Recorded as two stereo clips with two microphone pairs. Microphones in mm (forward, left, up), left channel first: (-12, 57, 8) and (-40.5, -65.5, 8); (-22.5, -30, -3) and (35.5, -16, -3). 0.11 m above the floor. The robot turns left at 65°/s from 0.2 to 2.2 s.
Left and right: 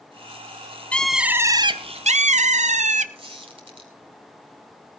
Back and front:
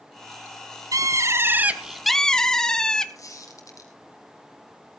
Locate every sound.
0.9 s a bird: 5° right, 0.7 m; by 3.0 s 85° right, 0.7 m
3.1 s a squeak: 145° right, 3 m